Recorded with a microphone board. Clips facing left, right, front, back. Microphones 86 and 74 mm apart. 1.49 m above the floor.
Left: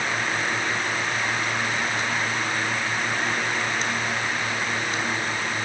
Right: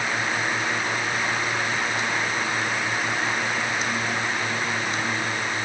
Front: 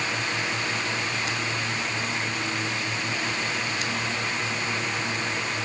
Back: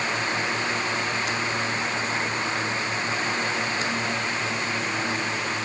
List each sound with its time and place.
Only background noise.